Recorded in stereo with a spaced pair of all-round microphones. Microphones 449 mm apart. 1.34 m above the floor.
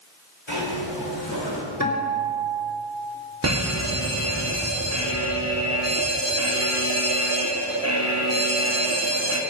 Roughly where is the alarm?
Right.